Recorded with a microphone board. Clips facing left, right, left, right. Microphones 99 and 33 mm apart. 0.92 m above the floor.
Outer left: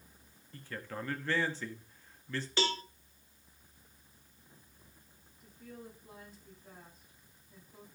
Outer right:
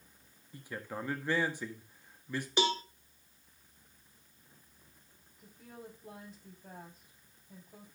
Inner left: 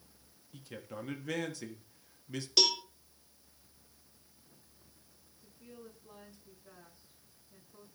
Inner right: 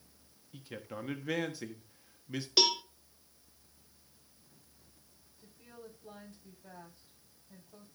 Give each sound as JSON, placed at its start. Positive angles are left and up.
{"t": 0.5, "sound": "a man speaking", "side_deg": -15, "distance_m": 1.3}
{"t": 2.6, "sound": "a cowbell", "side_deg": -15, "distance_m": 0.7}
{"t": 5.4, "sound": "a woman speaking", "side_deg": -85, "distance_m": 6.5}